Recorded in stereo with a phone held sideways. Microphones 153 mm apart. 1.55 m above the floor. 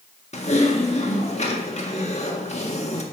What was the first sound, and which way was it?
Typing on a keyboard, 45° left (ahead or behind).